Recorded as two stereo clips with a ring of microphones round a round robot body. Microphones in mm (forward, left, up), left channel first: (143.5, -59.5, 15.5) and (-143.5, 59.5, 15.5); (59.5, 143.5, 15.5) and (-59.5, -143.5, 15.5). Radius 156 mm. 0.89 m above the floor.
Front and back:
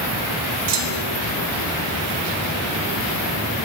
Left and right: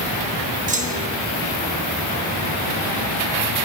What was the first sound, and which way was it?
A clunk, straight behind.